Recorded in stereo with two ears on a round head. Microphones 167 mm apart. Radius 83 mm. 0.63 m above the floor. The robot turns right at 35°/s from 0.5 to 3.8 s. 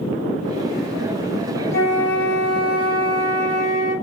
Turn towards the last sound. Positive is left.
turn(degrees=-130)